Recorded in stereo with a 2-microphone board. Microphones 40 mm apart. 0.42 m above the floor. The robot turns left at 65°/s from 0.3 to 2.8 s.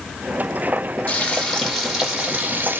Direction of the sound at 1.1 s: 50° left.